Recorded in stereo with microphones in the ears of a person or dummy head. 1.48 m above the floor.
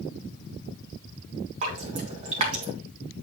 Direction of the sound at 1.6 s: 40° right (ahead or behind).